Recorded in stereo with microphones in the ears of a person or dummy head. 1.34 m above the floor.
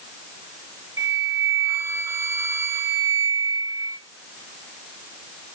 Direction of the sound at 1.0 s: 15° right (ahead or behind).